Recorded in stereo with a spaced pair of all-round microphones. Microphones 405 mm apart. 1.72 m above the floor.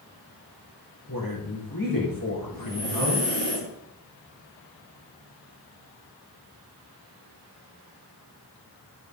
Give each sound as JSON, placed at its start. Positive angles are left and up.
{"t": 1.1, "sound": "a woman speaking", "side_deg": 50, "distance_m": 4.0}
{"t": 2.5, "sound": "breathing", "side_deg": 80, "distance_m": 7.5}